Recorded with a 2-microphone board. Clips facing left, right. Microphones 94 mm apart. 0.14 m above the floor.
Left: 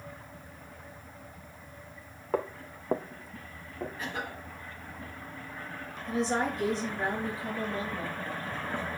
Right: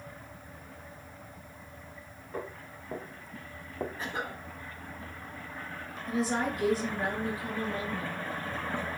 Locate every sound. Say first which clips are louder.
2.3 s footsteps: left 7 dB; 85° left, 1.0 m; by 3.9 s 30° right (ahead or behind), 1.3 m
4.0 s a cough: right 1 dB; 30° right (ahead or behind), 1.9 m
6.1 s a woman speaking: left 1 dB; 5° right (ahead or behind), 3 m